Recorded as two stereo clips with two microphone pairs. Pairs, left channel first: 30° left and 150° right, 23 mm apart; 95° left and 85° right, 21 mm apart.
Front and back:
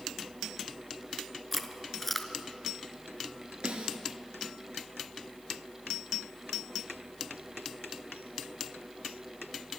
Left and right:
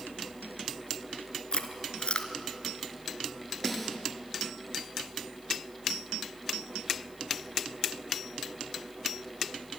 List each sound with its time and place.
1.5 s chewing: 115° left, 1.4 m
3.6 s a snare drum: 175° right, 2.5 m